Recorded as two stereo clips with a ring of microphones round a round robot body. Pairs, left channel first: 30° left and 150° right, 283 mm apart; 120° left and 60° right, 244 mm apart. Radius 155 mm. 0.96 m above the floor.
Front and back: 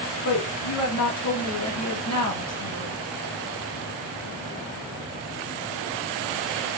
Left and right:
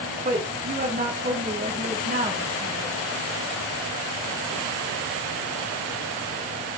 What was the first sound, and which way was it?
A woman speaking, 5° right.